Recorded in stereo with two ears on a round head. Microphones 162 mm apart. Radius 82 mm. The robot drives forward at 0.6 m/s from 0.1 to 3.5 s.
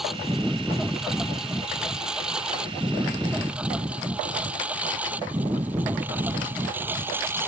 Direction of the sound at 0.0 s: Centre (ahead or behind).